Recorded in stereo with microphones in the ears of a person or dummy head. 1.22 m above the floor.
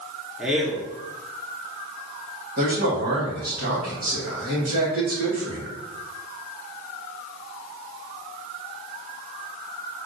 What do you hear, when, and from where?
0.4 s a man speaking: centre (ahead or behind), 0.7 m
2.6 s a man speaking: 40° right (ahead or behind), 1.5 m